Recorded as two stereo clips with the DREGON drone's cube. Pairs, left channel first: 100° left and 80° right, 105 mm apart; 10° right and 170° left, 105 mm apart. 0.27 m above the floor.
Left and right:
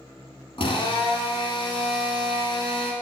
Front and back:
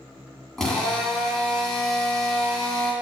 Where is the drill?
75° left, 1.0 m.